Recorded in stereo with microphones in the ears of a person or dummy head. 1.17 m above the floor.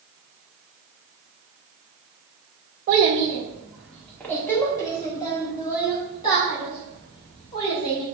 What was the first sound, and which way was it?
A child speaking, 40° right (ahead or behind).